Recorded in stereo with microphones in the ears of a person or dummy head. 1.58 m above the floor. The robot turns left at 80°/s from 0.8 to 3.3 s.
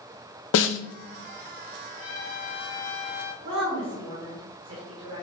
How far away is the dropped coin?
No dropped coin in this recording.